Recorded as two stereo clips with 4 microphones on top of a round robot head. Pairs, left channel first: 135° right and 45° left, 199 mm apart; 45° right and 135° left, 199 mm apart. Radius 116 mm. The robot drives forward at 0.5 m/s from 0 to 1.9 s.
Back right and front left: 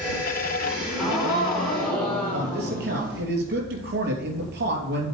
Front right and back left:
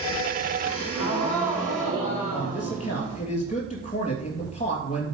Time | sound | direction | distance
0.6 | a gasp | 40° right | 3.5 m
2.3 | a man speaking | 10° left | 2.5 m